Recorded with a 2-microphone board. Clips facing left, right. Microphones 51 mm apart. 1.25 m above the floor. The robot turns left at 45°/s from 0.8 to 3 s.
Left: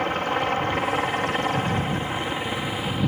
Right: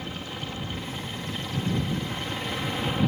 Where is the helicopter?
100° left; by 3.1 s straight ahead.